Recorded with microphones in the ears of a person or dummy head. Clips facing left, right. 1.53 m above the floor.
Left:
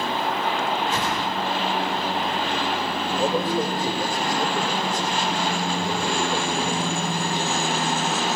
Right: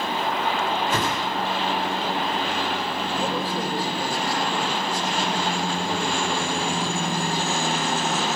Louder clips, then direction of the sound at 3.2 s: Left 6 dB; 20° left (ahead or behind).